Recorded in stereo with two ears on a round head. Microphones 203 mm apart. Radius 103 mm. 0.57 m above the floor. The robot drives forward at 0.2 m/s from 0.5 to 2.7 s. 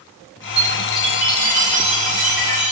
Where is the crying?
I don't hear crying.